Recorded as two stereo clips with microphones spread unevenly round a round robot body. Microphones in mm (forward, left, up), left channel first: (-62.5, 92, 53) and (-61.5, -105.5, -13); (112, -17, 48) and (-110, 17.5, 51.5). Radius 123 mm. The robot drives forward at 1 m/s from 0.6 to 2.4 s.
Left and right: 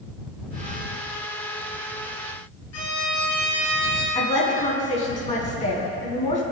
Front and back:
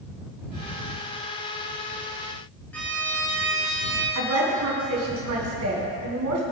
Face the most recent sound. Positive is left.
turn(degrees=150)